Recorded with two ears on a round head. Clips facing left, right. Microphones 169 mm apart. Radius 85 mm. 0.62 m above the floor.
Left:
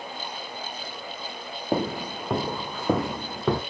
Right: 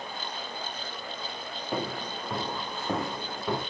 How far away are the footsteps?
About 1.1 m.